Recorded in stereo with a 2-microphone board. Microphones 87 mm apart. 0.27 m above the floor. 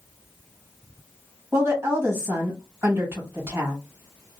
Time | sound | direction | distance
1.5 | a woman speaking | 30° right (ahead or behind) | 1.7 m